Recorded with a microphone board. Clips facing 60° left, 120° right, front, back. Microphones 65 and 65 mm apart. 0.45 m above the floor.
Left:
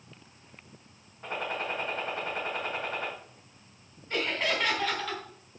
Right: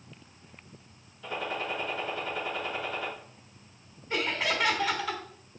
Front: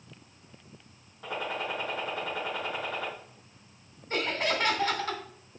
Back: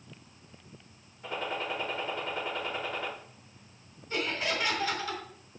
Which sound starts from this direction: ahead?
A gunshot, at 1.2 s.